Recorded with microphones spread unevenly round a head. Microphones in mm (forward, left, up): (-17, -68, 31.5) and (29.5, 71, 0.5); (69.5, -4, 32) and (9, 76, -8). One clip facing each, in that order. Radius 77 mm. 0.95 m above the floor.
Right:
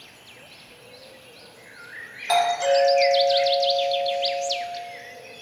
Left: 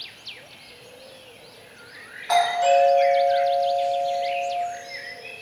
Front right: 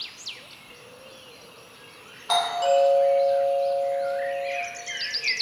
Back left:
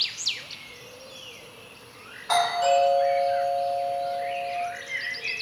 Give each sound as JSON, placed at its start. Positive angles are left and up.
{"t": 2.3, "sound": "a doorbell", "azimuth_deg": -145, "distance_m": 1.2}